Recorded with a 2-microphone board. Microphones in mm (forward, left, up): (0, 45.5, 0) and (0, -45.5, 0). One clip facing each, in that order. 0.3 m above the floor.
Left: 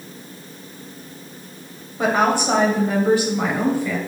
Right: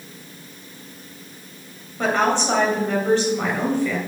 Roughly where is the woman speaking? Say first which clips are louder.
Left 2 dB; centre.